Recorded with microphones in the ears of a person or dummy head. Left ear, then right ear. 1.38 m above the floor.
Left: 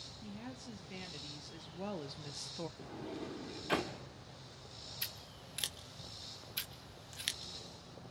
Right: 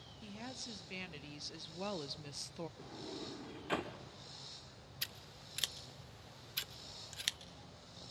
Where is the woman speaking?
35° right (ahead or behind), 2 m; by 2.7 s centre (ahead or behind), 0.5 m.